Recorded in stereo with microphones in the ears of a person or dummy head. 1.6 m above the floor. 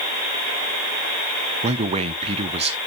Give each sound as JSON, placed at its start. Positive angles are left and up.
{"t": 1.6, "sound": "a man speaking", "side_deg": -30, "distance_m": 0.7}